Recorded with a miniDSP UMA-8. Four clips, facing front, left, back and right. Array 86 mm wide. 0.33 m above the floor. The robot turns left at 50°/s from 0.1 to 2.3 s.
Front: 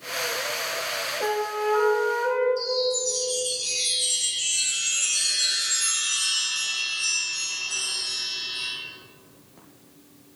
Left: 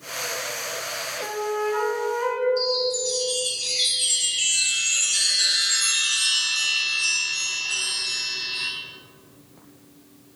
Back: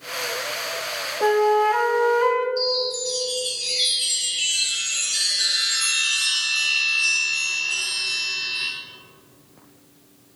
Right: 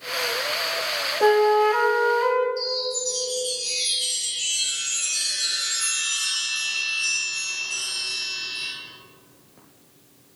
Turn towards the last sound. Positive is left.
turn(degrees=135)